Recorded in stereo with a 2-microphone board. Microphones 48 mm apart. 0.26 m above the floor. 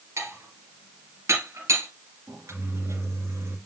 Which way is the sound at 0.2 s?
70° right (ahead or behind).